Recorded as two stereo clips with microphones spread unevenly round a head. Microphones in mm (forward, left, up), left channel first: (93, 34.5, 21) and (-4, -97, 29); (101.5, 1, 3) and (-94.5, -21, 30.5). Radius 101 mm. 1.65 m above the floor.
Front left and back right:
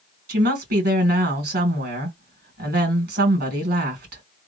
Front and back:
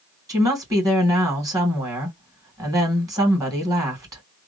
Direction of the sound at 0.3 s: 100° right.